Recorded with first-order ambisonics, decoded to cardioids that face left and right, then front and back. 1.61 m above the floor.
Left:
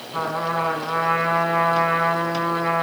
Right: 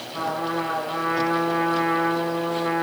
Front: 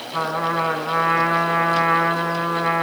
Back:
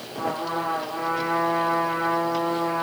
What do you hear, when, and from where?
0.1 s a trumpet: 30° left, 7.5 m